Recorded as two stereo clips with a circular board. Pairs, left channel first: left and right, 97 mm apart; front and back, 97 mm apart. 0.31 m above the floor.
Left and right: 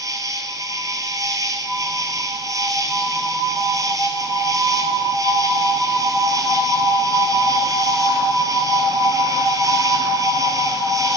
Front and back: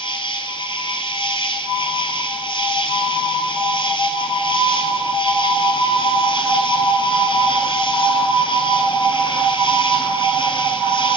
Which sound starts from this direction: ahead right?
An insect, at 0.0 s.